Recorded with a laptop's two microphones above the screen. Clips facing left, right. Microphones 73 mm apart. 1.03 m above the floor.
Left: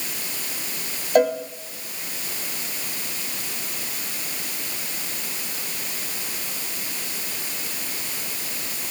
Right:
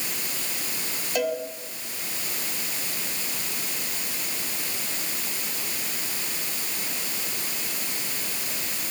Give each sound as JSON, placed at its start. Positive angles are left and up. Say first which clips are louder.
{"t": 1.1, "sound": "a cowbell", "louder": "left 8 dB", "side_deg": 40, "distance_m": 2.0}